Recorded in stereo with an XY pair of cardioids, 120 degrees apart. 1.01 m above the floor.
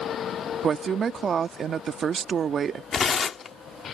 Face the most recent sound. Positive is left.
turn(degrees=40)